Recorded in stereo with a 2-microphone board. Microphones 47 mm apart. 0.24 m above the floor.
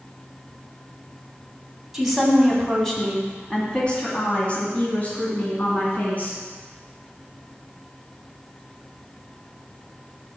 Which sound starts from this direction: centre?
A woman speaking, at 1.9 s.